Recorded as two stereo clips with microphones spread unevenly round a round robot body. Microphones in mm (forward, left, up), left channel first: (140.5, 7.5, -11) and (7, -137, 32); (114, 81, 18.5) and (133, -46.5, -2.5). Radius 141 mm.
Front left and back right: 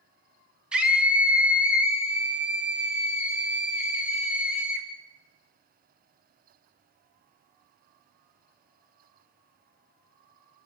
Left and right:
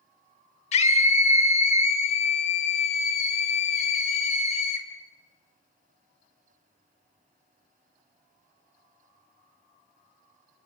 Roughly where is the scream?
Behind left.